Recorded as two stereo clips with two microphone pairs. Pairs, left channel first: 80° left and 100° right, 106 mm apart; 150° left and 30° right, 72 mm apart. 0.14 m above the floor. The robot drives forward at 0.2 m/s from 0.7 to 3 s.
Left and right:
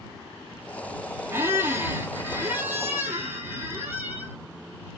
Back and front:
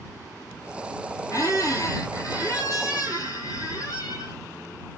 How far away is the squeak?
About 1.0 m.